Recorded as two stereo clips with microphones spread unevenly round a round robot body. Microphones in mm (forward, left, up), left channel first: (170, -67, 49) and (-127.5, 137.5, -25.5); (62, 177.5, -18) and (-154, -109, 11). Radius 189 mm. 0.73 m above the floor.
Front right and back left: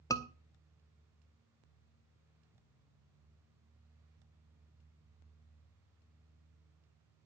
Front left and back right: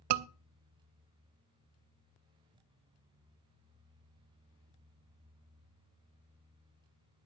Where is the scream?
120° right, 0.8 m.